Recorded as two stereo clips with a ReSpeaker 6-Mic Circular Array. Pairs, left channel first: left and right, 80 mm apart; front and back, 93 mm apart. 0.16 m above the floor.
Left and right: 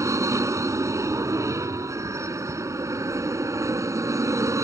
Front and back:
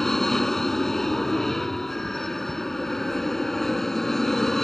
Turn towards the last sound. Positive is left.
turn(degrees=-85)